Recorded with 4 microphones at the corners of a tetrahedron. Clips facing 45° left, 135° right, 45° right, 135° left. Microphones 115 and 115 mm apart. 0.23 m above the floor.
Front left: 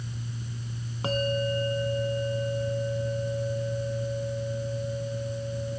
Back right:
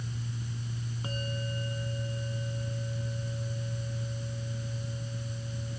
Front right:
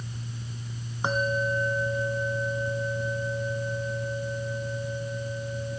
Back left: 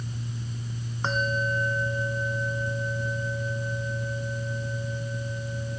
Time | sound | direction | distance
1.0 | a bell | 30° left | ?